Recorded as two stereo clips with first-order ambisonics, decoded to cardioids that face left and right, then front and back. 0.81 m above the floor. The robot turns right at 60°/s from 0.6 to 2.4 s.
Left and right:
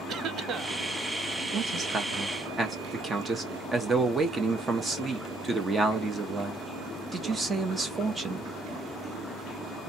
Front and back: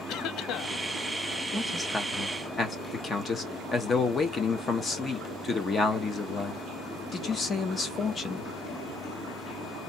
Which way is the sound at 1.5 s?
85° right.